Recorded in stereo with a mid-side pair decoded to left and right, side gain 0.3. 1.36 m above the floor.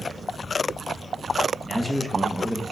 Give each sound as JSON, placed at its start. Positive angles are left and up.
{"t": 1.6, "sound": "a man speaking", "azimuth_deg": -15, "distance_m": 0.9}